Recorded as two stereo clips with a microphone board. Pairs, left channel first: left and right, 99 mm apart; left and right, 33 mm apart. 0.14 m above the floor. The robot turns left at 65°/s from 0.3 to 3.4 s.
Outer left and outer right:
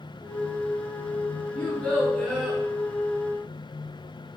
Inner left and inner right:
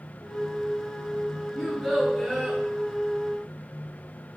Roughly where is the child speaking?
Centre.